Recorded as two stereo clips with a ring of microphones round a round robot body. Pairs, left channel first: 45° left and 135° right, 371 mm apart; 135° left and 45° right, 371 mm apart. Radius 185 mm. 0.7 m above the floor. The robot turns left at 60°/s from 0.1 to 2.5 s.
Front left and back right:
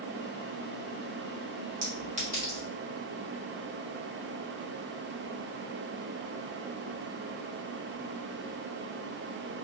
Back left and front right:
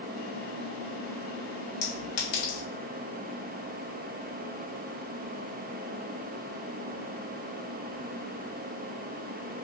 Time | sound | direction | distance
1.8 | a clink | 175° left | 1.1 m